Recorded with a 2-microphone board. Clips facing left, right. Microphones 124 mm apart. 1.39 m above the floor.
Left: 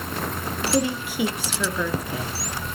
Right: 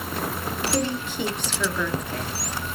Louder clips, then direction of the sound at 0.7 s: Left 4 dB; 10° left (ahead or behind).